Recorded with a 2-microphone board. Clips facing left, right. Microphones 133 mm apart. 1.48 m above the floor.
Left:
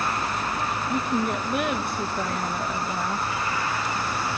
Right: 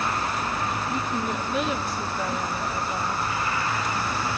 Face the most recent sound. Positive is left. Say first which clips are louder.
# left 3 dB
turn(degrees=60)  # may be behind; listen again after turning